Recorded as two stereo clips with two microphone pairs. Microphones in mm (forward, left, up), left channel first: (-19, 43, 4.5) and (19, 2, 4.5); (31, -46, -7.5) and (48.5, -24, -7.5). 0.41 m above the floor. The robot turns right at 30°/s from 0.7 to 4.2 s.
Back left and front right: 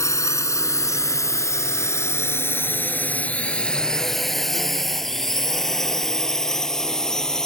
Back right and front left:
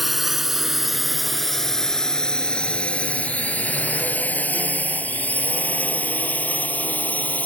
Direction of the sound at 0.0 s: 140° left.